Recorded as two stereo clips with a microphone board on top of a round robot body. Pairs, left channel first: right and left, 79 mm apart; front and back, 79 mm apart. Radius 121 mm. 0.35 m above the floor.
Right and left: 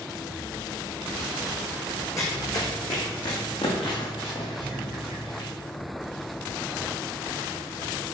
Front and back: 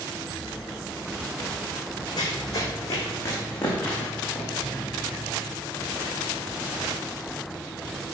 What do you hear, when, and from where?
2.2 s running footsteps: 40° right, 1.9 m; by 5.5 s 85° right, 3.5 m